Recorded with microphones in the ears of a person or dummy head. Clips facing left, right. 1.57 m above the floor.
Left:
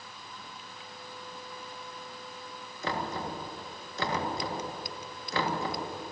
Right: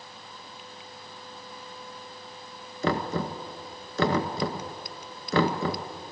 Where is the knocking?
50° right (ahead or behind), 1.7 m.